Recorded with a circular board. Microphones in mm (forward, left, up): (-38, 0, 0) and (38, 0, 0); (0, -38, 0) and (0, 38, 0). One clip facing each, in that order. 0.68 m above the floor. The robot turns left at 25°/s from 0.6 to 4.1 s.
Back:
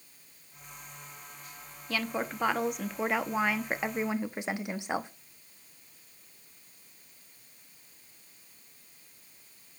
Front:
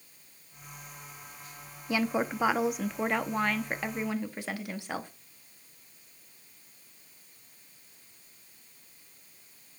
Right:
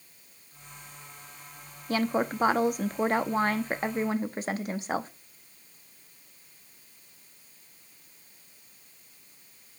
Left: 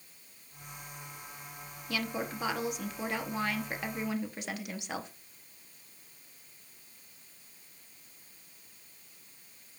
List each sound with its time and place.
1.9 s a woman speaking: 65° right, 0.6 m; by 5.1 s 120° right, 0.6 m